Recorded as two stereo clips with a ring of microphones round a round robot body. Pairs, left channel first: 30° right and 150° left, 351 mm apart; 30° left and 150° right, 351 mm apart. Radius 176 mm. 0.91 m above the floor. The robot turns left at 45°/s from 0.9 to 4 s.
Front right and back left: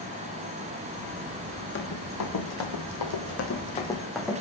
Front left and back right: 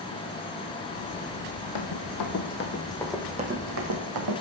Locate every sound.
1.8 s running footsteps: 25° left, 2.5 m; by 4.4 s 120° right, 2.5 m